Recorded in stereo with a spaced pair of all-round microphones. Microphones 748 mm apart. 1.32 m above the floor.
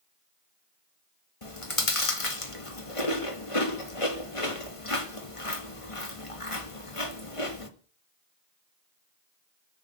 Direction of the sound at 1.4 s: 45° left (ahead or behind).